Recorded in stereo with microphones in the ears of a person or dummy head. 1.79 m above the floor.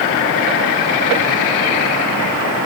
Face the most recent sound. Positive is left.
No sound to turn to.